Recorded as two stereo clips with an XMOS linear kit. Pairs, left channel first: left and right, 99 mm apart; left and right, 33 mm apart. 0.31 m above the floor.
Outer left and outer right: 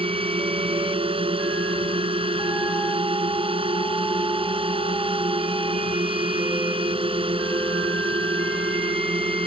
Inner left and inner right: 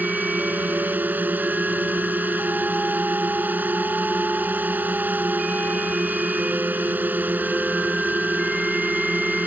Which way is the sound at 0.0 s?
70° right (ahead or behind).